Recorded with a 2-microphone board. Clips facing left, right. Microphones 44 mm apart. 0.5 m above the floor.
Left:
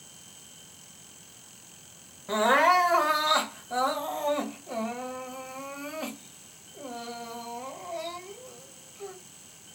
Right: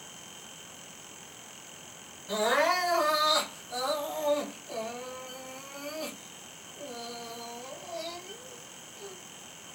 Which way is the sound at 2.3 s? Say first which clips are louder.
Left 5 dB; 35° left (ahead or behind).